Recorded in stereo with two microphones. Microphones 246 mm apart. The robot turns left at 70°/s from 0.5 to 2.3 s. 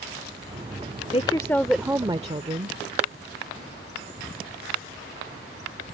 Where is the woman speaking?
40° left; by 2.8 s 40° right.